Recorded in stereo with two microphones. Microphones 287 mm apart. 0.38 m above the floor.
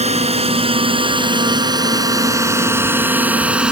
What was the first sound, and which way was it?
A drone, 20° right (ahead or behind).